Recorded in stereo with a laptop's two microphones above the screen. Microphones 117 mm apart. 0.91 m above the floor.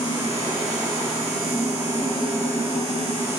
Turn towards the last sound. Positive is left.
turn(degrees=-20)  # may be behind; listen again after turning